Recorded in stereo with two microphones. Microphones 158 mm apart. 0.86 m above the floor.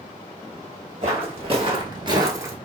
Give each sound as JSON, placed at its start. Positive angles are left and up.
{"t": 1.0, "sound": "footsteps", "side_deg": -40, "distance_m": 1.3}